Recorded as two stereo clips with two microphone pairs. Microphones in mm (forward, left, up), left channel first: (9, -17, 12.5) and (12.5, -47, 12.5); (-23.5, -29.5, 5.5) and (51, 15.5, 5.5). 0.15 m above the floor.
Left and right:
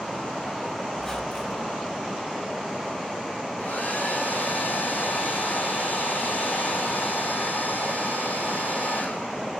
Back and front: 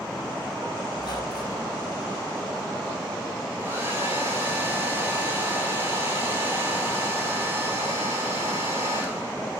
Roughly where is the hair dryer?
Left.